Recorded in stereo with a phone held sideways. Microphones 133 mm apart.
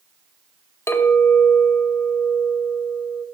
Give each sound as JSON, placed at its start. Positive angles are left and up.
{"t": 0.9, "sound": "a clink", "side_deg": 20, "distance_m": 1.8}